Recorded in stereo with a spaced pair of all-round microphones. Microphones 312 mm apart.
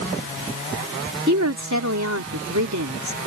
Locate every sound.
1.3 s a woman speaking: 60° right (ahead or behind)